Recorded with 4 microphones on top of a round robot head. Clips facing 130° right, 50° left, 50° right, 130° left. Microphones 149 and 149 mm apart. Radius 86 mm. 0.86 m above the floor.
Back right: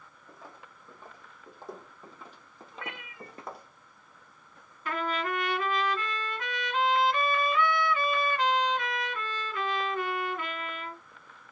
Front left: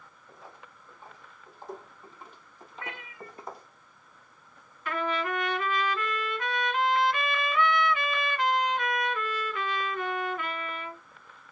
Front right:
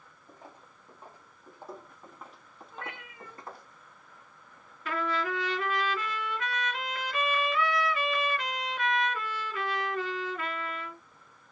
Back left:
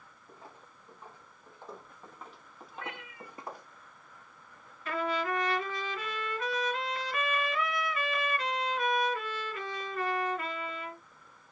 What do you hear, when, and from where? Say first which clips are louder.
0.3 s footsteps: even, front right 1 dB; 125° right, 2.5 m; by 3.7 s 160° right, 1.3 m
2.7 s a cat meowing: even, even; 90° right, 2.5 m
4.8 s a trumpet: front left 1 dB, even; 75° right, 3 m